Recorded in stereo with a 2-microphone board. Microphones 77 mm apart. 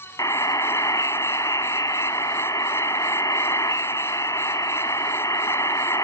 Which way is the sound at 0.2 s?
50° left (ahead or behind).